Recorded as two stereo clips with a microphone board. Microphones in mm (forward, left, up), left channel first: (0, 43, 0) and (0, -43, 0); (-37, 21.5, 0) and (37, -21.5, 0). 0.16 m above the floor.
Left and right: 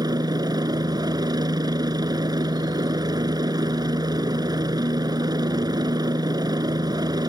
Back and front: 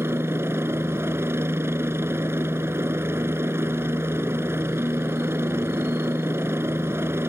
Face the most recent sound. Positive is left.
turn(degrees=-85)